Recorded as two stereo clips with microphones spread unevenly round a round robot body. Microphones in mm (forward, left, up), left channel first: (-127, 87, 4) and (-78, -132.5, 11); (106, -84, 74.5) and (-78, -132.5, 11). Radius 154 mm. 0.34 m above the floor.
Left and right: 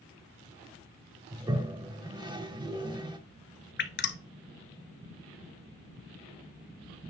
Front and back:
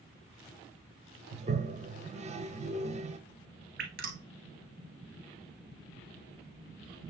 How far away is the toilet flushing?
About 1.1 m.